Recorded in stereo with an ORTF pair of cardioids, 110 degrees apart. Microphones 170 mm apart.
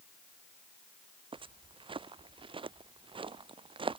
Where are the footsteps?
30° right.